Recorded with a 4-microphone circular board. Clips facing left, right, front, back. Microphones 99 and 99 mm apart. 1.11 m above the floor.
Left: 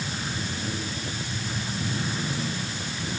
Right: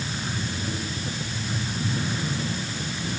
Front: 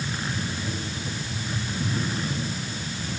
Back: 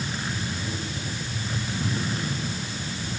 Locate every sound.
Only background noise.